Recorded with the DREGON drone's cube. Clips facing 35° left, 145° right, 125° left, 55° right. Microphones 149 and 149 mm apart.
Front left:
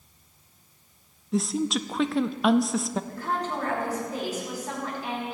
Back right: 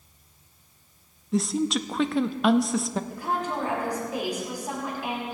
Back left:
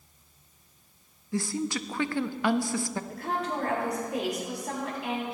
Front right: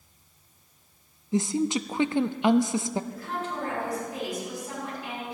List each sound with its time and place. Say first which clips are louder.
1.3 s a woman speaking: back right 1 dB, front right 5 dB; 55° right, 0.5 m
3.1 s a woman speaking: back right 1 dB, back left 2 dB; 140° left, 5.5 m